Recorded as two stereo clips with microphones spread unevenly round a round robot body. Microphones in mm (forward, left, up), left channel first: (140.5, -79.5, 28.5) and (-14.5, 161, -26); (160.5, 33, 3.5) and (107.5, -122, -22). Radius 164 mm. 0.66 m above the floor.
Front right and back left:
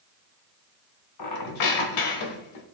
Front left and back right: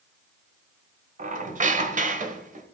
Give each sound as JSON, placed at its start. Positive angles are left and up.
{"t": 1.2, "sound": "a squeak", "azimuth_deg": -65, "distance_m": 1.3}